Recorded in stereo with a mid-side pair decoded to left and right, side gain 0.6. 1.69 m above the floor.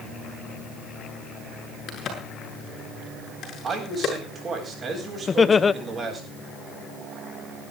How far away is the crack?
About 8 m.